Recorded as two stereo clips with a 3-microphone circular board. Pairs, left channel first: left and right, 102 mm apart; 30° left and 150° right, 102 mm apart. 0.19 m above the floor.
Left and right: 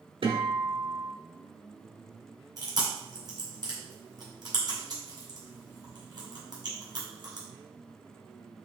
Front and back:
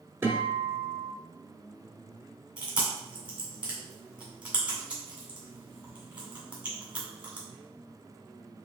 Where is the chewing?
75° right, 1.8 m.